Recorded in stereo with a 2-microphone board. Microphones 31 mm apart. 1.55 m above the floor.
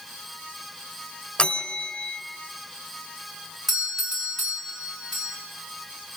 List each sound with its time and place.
1.4 s a bell: 30° left (ahead or behind), 1.5 m
3.7 s a doorbell: 10° right (ahead or behind), 4 m